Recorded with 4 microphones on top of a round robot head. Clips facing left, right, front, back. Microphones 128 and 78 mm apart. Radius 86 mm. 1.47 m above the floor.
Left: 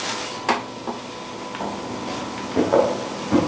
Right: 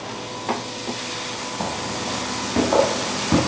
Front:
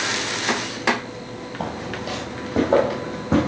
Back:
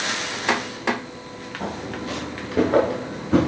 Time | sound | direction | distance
1.6 | footsteps | 30° right | 2.5 m